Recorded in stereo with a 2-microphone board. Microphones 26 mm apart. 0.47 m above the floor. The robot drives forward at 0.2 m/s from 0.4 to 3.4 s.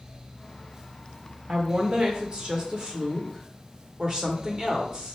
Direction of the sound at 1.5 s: 40° right (ahead or behind).